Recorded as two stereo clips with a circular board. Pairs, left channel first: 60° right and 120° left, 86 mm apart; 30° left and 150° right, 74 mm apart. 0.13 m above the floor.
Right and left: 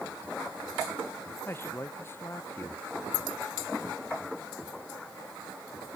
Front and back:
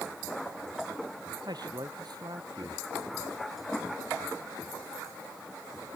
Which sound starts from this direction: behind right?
A man speaking, at 1.4 s.